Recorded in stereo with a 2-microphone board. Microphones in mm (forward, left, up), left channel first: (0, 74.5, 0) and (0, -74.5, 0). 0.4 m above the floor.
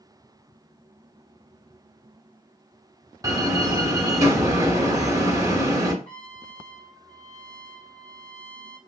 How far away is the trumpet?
About 1.3 m.